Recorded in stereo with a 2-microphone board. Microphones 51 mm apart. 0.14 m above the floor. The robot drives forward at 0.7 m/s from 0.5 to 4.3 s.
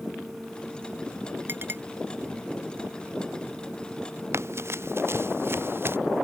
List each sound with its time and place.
1.5 s a clink: 45° right (ahead or behind)
4.3 s running footsteps: 55° right (ahead or behind); by 6.0 s 45° right (ahead or behind)